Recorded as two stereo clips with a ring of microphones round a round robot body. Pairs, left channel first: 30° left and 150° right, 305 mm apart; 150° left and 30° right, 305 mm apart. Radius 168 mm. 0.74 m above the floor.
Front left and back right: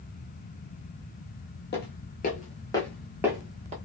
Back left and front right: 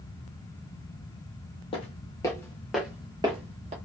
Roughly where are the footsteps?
Left.